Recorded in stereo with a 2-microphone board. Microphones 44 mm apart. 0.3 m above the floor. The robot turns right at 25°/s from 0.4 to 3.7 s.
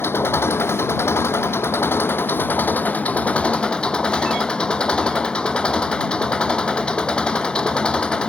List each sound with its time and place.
0.0 s an engine running: 70° left; by 8.3 s 155° left